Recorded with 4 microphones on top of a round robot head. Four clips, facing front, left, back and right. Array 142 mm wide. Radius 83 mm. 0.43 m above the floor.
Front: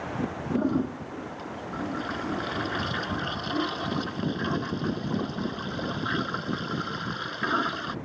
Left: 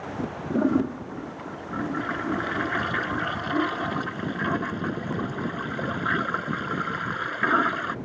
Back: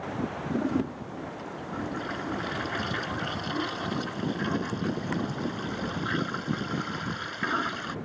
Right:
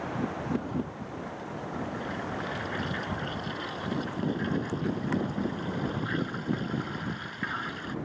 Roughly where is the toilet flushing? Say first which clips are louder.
Left 9 dB, front 2 dB; left.